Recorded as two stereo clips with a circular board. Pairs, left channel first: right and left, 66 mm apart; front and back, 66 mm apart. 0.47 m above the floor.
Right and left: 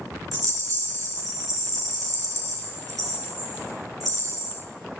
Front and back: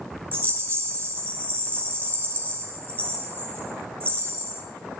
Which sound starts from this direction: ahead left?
A rattle, at 0.3 s.